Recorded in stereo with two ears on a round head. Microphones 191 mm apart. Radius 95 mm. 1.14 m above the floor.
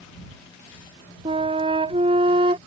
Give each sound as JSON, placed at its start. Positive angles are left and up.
{"t": 1.2, "sound": "a flute", "side_deg": -25}